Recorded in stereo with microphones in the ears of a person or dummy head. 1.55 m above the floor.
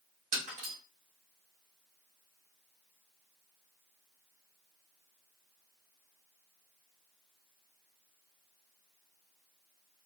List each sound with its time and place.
0.3 s breaking glass: 45° right (ahead or behind), 1.1 m